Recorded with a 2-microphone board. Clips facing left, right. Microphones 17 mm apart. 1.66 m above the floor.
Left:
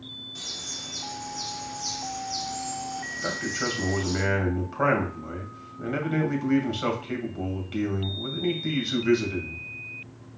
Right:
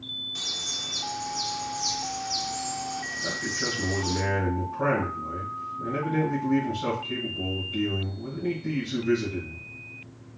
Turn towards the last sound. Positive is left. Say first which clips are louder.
# left 1 dB
turn(degrees=85)